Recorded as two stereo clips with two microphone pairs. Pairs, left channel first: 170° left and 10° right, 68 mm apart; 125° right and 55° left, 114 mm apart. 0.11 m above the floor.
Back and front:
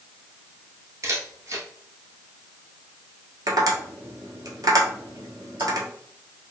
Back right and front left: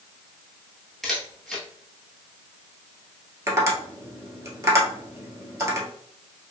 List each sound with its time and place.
1.0 s a camera shutter: 40° right, 1.1 m
3.5 s tapping: 5° right, 1.1 m